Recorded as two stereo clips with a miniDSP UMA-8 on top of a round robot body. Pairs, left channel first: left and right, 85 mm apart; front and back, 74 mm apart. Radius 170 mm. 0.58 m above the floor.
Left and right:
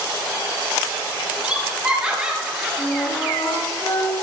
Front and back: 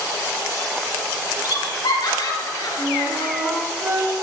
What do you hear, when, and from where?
1.4 s laughter: 15° right, 5 m; by 3.3 s 5° right, 6 m
2.8 s a flute: 135° left, 5 m